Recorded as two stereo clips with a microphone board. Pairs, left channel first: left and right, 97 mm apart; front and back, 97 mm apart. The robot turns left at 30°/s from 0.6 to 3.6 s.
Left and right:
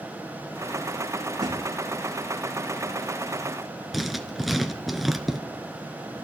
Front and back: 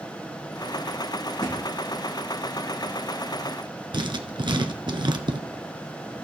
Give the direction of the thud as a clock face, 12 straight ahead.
1 o'clock.